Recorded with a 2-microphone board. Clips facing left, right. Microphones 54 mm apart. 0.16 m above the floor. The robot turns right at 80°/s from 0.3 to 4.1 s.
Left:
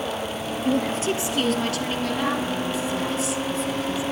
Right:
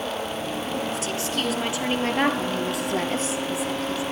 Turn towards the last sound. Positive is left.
turn(degrees=30)